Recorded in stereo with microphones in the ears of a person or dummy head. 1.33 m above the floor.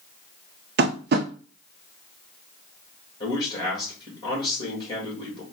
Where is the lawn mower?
No lawn mower in this recording.